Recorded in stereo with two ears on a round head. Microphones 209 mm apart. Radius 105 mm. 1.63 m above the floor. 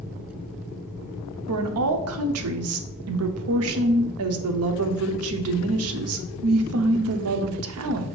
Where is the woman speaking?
65° right (ahead or behind), 0.5 m.